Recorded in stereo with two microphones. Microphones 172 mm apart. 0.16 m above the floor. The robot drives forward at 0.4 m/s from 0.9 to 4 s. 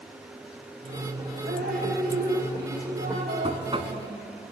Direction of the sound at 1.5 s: 80° right.